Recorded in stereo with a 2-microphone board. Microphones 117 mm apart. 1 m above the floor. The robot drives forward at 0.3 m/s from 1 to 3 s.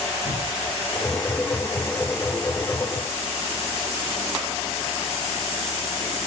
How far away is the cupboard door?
About 1.5 m.